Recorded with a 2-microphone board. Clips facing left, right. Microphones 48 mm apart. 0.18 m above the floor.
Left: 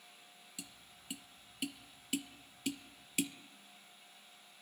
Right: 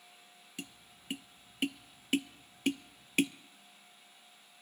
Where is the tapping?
50° right (ahead or behind), 0.6 m.